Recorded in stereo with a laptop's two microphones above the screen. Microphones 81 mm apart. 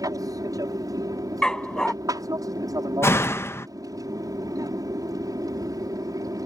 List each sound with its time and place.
0.0 s an aircraft: 50° right (ahead or behind)
1.4 s a dog barking: 10° left (ahead or behind)
3.0 s a door slam: 30° left (ahead or behind)